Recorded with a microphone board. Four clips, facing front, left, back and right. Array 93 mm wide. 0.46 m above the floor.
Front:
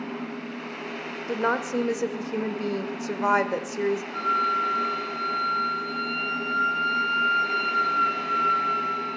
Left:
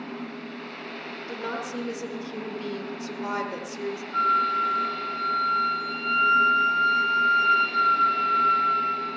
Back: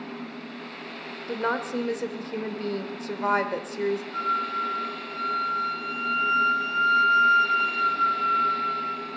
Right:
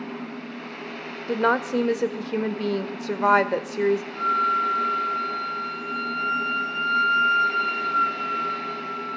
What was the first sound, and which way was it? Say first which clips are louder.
A woman speaking: right 11 dB, front 2 dB; 75° right.